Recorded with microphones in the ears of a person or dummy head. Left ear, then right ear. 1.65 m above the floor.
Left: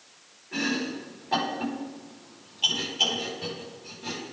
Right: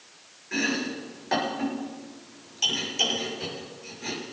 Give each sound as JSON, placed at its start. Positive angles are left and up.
{"t": 0.5, "sound": "chopping", "side_deg": -55, "distance_m": 6.5}